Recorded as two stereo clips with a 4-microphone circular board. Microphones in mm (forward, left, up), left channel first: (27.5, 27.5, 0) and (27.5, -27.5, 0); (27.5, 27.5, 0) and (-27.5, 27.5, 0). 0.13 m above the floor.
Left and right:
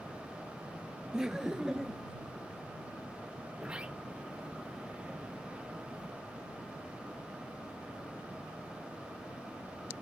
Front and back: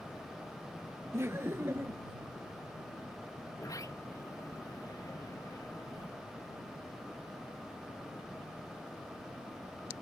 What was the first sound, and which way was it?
Laughter, 170° right.